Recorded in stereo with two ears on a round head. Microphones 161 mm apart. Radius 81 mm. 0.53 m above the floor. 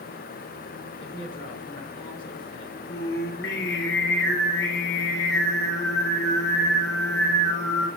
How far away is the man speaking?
About 6 m.